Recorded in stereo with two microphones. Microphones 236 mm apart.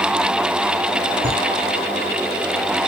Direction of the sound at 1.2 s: 25° left (ahead or behind).